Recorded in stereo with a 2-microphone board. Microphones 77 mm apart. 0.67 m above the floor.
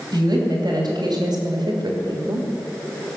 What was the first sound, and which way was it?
A woman speaking, 60° right (ahead or behind).